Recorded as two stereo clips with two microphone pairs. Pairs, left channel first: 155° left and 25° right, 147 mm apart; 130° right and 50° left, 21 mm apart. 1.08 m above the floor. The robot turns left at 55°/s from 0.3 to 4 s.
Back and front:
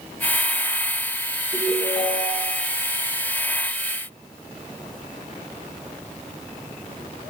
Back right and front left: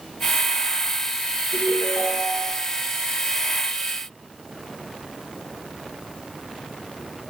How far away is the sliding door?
No sliding door in this recording.